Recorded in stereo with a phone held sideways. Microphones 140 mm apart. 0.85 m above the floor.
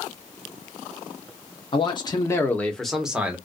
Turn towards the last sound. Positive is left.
turn(degrees=-10)  # may be behind; listen again after turning